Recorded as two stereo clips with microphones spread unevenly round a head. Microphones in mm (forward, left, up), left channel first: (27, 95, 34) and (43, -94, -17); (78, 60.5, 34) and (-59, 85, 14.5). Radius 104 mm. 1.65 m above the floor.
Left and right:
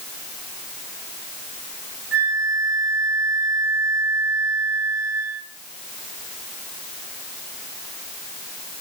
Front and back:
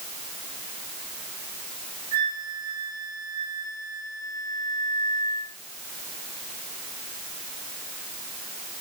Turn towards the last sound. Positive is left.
turn(degrees=-120)